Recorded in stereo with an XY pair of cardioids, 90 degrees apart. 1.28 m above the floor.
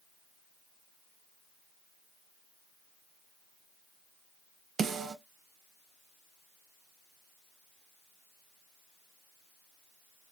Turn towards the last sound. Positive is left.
turn(degrees=-60)